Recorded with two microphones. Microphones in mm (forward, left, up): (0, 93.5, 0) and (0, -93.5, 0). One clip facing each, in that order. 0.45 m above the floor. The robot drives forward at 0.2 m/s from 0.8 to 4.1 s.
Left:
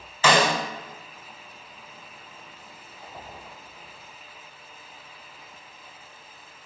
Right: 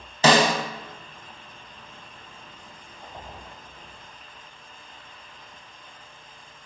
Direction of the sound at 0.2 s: 35° right (ahead or behind).